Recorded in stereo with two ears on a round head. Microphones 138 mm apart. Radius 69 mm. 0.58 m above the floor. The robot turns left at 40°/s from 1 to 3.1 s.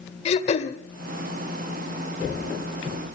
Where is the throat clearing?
40° left (ahead or behind), 1.4 m.